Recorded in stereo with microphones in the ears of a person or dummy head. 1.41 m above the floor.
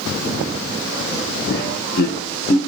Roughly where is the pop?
I don't hear a pop.